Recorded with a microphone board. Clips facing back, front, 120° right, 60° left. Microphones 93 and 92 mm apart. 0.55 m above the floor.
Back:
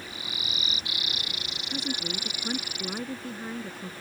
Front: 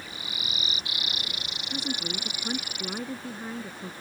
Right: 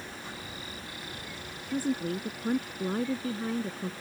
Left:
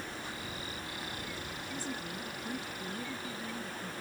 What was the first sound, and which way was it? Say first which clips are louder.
A woman speaking: even, right 13 dB; 90° right.